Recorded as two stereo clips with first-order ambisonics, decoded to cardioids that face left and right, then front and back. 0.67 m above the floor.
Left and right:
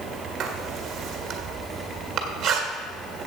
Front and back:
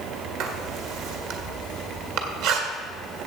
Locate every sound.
0.4 s writing: 150° right, 1.7 m